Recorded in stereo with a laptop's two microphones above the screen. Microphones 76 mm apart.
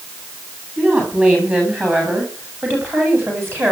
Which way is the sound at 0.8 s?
20° right (ahead or behind).